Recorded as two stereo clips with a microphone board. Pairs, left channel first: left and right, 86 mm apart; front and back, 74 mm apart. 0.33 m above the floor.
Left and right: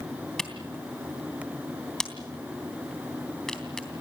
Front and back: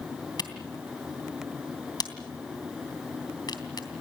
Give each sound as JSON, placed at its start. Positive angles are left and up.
{"t": 0.4, "sound": "a camera shutter", "azimuth_deg": 5, "distance_m": 3.0}